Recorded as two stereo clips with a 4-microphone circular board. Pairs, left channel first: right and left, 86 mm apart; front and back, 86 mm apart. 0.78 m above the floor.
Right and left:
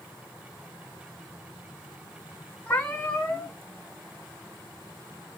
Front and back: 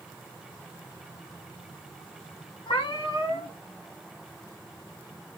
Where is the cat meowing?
15° right, 3 m.